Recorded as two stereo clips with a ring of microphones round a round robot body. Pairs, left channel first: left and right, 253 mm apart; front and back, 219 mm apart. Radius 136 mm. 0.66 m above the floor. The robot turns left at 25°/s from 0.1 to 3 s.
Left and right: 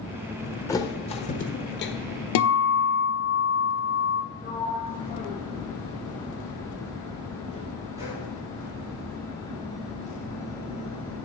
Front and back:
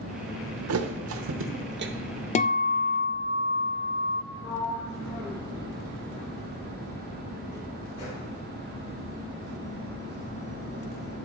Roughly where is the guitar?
Ahead left.